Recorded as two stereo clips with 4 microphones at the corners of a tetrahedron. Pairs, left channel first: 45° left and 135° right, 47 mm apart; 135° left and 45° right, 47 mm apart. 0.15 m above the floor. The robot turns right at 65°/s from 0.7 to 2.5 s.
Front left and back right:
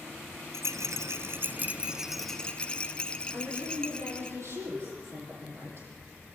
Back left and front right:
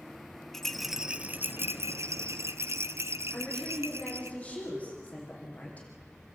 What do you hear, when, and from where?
0.5 s a rattle: 140° right, 0.6 m; by 4.3 s 25° right, 0.6 m
3.3 s a woman speaking: 165° right, 6 m